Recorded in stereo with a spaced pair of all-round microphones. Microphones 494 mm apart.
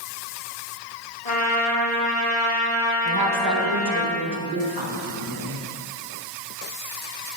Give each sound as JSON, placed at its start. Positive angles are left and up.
{"t": 1.2, "sound": "a trumpet", "side_deg": 45, "distance_m": 1.1}
{"t": 3.0, "sound": "a woman speaking", "side_deg": -45, "distance_m": 1.2}